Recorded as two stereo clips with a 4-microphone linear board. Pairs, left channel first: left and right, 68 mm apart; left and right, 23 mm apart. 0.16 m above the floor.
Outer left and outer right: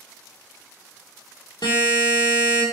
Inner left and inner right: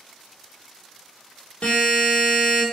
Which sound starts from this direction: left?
A buzzer, at 1.6 s.